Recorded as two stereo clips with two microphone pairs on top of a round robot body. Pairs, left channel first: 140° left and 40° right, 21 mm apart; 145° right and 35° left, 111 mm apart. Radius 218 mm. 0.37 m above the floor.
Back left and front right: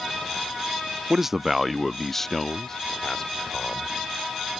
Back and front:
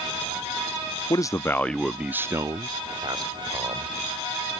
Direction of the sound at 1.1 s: 95° right.